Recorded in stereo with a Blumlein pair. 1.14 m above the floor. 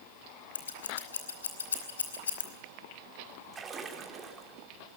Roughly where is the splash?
Ahead.